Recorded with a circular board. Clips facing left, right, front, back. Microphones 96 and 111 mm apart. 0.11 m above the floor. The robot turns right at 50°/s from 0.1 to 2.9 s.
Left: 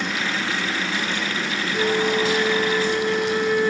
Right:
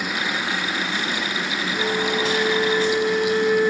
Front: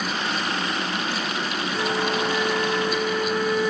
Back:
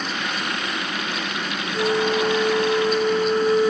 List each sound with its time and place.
1.7 s a flute: 110° left, 1.3 m; by 3.7 s 170° left, 1.3 m